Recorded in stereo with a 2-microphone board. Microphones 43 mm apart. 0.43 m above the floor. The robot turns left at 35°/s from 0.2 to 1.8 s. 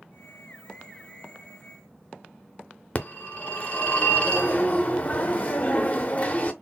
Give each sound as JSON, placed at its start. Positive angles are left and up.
{"t": 3.0, "sound": "a phone ringing", "side_deg": 35, "distance_m": 0.5}